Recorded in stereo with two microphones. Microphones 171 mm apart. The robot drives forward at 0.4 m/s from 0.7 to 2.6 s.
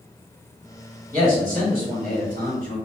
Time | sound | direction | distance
1.1 | a man speaking | 55° right (ahead or behind) | 2.0 m